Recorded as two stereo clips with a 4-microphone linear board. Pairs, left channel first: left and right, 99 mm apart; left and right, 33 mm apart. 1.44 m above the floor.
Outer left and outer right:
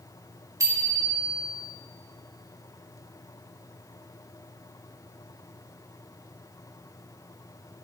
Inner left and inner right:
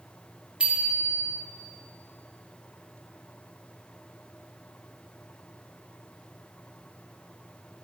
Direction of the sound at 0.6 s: 35° right (ahead or behind).